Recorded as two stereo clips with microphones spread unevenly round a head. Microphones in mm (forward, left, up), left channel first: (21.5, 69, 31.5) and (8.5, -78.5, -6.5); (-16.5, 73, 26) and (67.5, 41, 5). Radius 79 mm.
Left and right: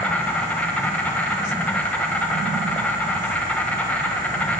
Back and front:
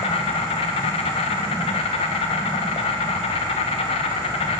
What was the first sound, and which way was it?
An insect, 175° left.